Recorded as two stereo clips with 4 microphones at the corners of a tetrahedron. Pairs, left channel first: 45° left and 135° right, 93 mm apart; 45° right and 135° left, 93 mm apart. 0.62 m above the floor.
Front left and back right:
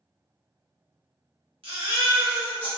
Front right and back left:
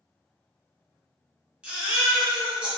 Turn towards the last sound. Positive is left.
turn(degrees=-145)